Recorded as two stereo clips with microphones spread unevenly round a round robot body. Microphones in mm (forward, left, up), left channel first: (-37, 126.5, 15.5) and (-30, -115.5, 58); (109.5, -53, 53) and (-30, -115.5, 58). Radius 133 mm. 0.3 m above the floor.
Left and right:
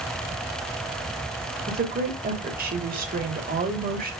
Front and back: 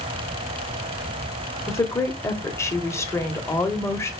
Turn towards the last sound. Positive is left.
turn(degrees=-40)